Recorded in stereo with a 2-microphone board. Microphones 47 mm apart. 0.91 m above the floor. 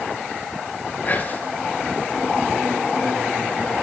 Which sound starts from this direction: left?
Whispering, at 1.1 s.